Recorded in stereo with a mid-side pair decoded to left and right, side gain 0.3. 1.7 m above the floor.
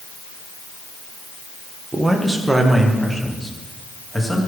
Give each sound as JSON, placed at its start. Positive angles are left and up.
{"t": 1.9, "sound": "a man speaking", "azimuth_deg": -30, "distance_m": 1.9}